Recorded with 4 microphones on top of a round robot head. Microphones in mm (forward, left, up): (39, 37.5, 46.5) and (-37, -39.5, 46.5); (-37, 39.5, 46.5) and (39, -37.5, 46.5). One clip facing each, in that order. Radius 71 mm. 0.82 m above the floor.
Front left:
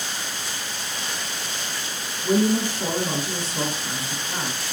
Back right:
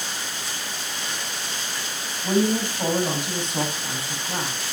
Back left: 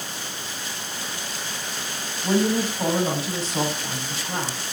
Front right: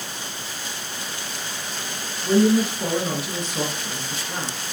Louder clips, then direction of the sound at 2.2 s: Front left 1 dB, front right 4 dB; 170° right.